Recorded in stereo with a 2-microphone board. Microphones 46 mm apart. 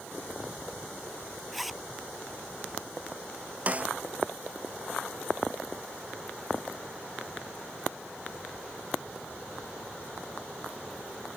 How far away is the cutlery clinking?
I don't hear cutlery clinking.